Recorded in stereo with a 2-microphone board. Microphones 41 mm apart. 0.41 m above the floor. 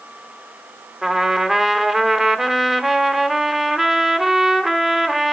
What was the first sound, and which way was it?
A trumpet, 5° right (ahead or behind).